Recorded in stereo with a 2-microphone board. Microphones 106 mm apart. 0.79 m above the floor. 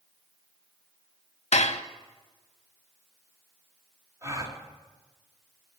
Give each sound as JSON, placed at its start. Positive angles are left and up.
{"t": 1.5, "sound": "dishes clattering", "side_deg": 80, "distance_m": 0.6}
{"t": 4.2, "sound": "a gasp", "side_deg": -25, "distance_m": 1.8}